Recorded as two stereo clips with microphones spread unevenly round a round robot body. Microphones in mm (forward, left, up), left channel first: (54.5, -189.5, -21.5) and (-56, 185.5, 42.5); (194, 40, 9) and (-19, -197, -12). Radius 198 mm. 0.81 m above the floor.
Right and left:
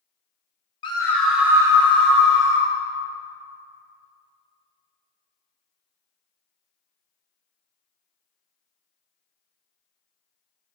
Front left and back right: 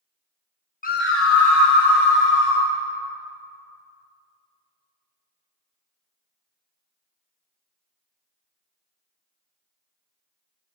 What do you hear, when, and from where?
0.8 s a scream: 10° right, 1.2 m; by 2.7 s 35° left, 2.5 m